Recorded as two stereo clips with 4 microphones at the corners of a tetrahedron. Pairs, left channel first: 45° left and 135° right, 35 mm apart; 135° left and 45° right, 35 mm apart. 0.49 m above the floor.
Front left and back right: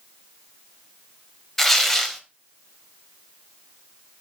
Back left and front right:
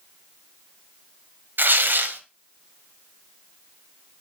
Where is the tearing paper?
40° right, 1.3 m.